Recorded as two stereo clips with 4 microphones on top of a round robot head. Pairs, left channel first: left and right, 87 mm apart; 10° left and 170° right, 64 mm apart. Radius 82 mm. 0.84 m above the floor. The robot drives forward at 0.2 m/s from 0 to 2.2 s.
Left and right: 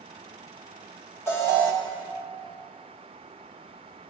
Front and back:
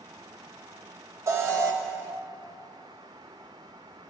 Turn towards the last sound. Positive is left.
turn(degrees=155)